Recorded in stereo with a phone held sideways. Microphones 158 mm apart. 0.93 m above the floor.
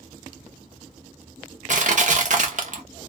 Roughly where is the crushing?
Right.